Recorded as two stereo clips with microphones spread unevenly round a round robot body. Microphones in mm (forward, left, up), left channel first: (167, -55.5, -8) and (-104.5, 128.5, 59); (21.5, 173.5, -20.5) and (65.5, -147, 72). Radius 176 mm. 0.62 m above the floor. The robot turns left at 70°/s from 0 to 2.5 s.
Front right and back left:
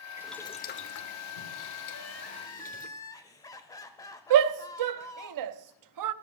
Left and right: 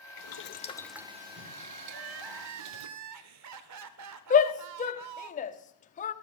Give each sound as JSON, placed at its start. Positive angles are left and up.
{"t": 0.2, "sound": "boiling", "azimuth_deg": 60, "distance_m": 1.0}
{"t": 1.9, "sound": "crying", "azimuth_deg": -75, "distance_m": 0.6}
{"t": 4.3, "sound": "a shout", "azimuth_deg": 135, "distance_m": 0.7}